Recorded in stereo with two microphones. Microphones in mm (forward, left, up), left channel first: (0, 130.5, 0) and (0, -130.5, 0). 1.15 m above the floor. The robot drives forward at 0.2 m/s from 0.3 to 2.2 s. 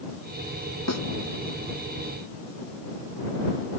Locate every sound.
0.9 s a snare drum: 75° left (ahead or behind)